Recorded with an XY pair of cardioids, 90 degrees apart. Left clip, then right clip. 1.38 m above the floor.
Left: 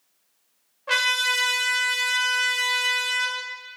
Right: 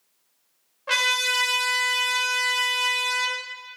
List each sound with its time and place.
0.9 s a trumpet: 20° right, 0.7 m